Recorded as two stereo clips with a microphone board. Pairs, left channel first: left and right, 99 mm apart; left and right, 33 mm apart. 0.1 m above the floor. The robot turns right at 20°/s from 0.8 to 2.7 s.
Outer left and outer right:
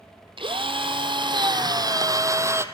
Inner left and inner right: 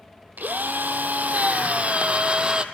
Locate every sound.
0.4 s a drill: 65° right, 1.8 m; by 2.6 s 30° right, 1.8 m